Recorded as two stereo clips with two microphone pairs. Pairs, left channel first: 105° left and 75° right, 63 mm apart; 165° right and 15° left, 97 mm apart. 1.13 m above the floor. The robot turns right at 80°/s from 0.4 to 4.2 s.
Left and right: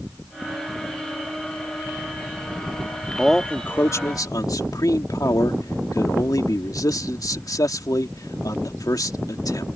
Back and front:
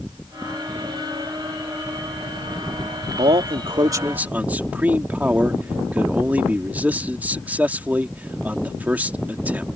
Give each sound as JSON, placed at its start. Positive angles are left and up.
{"t": 3.2, "sound": "a man speaking", "azimuth_deg": 10}